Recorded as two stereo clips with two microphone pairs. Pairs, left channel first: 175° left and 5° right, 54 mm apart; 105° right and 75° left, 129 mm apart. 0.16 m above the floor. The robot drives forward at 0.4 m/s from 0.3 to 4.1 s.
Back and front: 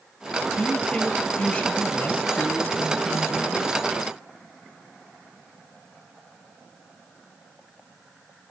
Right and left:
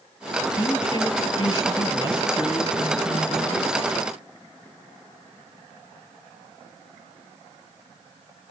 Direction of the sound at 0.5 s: 125° right.